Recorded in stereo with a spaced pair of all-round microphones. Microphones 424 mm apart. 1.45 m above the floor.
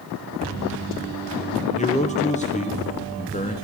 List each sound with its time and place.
1.8 s a man speaking: 15° left (ahead or behind), 0.6 m